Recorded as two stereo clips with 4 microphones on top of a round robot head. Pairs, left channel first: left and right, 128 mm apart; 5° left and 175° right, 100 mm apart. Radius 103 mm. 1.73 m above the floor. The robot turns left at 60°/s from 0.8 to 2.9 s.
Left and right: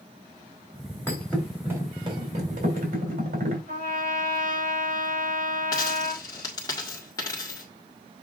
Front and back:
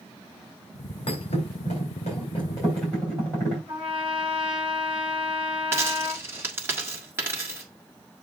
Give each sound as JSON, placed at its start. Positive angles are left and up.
{"t": 1.1, "sound": "a thud", "azimuth_deg": 20, "distance_m": 3.5}
{"t": 3.7, "sound": "a trumpet", "azimuth_deg": -95, "distance_m": 6.0}
{"t": 5.7, "sound": "a dropped coin", "azimuth_deg": 140, "distance_m": 1.3}